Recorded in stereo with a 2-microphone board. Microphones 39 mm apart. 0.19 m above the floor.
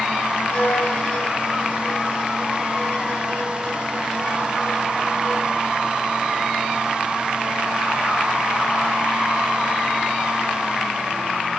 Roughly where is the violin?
Left.